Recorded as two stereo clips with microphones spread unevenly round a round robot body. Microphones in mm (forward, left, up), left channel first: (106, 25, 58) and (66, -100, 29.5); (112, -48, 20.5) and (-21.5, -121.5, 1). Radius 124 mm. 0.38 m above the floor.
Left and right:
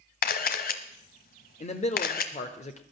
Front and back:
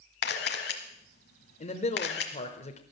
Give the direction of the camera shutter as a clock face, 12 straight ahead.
10 o'clock.